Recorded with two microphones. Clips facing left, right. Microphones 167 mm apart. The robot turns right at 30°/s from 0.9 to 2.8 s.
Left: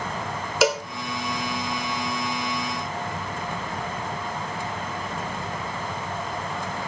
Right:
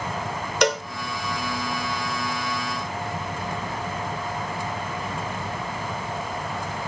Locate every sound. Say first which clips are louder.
0.6 s a cowbell: left 1 dB; 5° left (ahead or behind), 1.8 m